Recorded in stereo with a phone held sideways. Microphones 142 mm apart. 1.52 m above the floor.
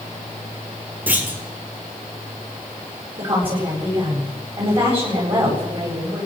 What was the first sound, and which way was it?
A clunk, 10° right (ahead or behind).